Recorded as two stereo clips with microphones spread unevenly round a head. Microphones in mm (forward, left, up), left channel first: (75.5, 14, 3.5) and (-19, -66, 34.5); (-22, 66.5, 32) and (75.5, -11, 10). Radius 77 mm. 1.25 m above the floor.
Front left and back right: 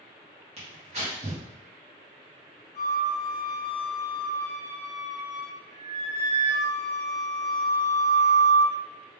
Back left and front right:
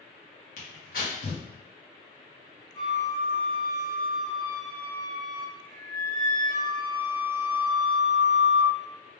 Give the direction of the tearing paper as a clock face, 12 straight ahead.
6 o'clock.